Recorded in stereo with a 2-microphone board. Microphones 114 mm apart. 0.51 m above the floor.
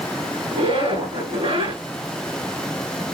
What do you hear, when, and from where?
0.5 s a zipper: 55° right (ahead or behind), 2.5 m